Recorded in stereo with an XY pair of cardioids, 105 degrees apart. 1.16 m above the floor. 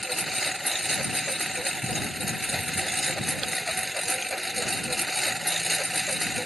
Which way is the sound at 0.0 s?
Straight ahead.